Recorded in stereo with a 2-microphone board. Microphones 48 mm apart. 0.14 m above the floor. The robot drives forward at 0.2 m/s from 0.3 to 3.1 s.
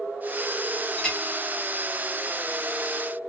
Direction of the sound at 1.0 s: 10° left (ahead or behind).